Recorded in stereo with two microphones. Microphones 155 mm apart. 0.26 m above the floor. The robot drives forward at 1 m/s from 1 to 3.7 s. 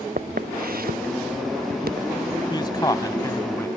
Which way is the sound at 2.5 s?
30° left (ahead or behind).